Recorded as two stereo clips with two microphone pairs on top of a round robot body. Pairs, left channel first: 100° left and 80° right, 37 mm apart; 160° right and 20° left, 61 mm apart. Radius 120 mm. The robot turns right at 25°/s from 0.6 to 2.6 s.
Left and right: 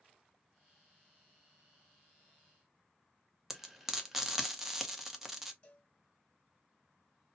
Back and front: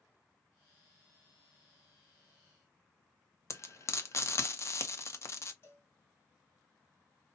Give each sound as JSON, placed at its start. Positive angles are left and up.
{"t": 3.5, "sound": "frying", "azimuth_deg": -160, "distance_m": 1.0}
{"t": 5.6, "sound": "a cowbell", "azimuth_deg": 160, "distance_m": 1.7}